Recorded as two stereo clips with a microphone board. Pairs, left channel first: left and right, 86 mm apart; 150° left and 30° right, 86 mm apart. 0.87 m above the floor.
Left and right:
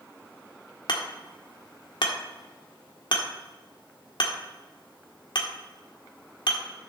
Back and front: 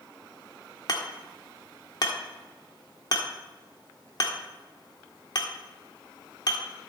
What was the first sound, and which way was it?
Hammering, 115° left.